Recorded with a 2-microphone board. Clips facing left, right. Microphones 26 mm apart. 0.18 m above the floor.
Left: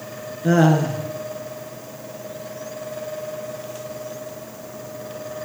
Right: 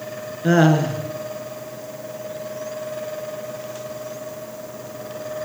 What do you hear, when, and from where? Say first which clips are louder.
0.4 s laughter: right 1 dB; 20° right (ahead or behind), 1.9 m